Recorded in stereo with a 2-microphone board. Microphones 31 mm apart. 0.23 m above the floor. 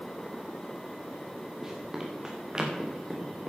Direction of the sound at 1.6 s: 15° right (ahead or behind).